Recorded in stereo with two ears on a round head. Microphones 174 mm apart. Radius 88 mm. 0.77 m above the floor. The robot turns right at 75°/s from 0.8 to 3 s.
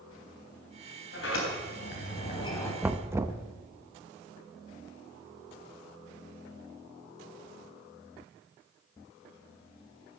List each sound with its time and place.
1.1 s a sliding door: 55° left, 4 m; by 2.7 s 175° left, 4 m
2.8 s knocking: 10° right (ahead or behind), 0.6 m; by 3.4 s 15° right (ahead or behind), 0.6 m